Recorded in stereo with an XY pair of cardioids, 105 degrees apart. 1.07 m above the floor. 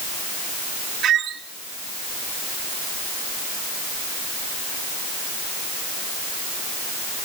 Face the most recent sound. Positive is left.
turn(degrees=-70)